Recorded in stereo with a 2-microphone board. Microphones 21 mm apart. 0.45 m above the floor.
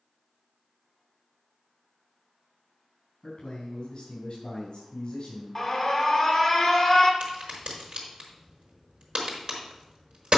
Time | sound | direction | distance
3.2 | a man speaking | 50° left (ahead or behind) | 4.5 m
5.5 | an alarm | 15° left (ahead or behind) | 1.6 m
7.2 | a crack | 60° right (ahead or behind) | 4.5 m